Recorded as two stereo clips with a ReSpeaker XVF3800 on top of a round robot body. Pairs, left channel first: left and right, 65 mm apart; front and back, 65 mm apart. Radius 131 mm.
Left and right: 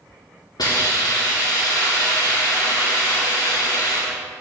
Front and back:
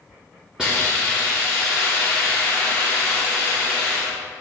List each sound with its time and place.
0.6 s a hiss: 100° left, 2.5 m